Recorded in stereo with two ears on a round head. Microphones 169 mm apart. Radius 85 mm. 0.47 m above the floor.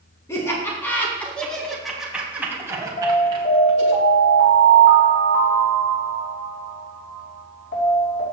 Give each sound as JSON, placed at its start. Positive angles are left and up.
{"t": 0.3, "sound": "laughter", "side_deg": 15, "distance_m": 3.5}
{"t": 3.0, "sound": "an alarm", "side_deg": 65, "distance_m": 4.5}